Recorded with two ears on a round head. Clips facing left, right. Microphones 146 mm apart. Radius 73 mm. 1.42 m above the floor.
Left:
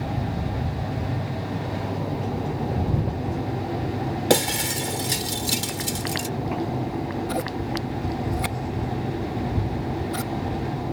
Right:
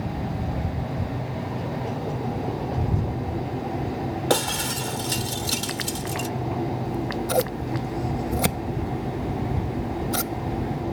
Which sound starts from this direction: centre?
Breaking glass, at 4.3 s.